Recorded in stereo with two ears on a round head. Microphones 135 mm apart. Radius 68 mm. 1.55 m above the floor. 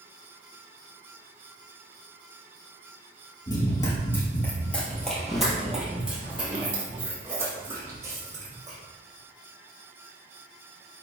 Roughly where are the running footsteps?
Left.